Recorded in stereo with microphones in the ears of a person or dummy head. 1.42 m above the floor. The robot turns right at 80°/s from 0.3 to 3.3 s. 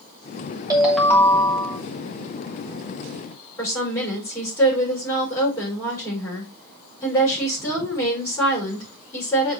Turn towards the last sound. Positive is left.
turn(degrees=15)  # may be behind; listen again after turning